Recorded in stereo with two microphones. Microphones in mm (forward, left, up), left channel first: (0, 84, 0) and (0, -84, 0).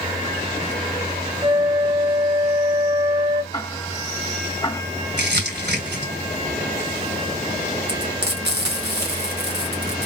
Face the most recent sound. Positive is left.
turn(degrees=-80)